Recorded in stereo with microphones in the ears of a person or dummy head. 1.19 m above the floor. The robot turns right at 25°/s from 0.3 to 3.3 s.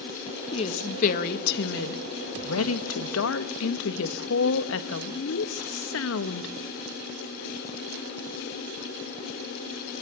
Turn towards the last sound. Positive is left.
turn(degrees=105)